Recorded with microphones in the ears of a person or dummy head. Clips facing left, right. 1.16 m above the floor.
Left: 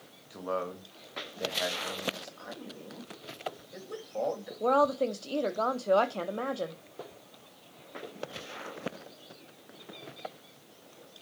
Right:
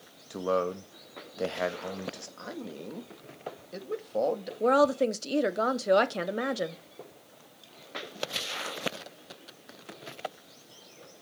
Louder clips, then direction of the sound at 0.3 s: Right 6 dB; 55° right (ahead or behind).